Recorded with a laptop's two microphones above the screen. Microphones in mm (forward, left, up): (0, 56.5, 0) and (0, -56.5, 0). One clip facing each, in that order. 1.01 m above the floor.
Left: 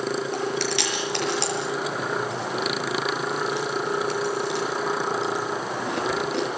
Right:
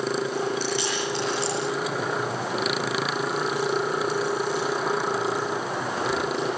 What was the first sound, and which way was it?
Chewing, 80° left.